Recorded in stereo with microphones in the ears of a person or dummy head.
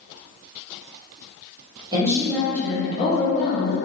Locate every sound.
1.9 s a woman speaking: 25° right (ahead or behind), 1.0 m; by 3.8 s 50° left (ahead or behind), 1.3 m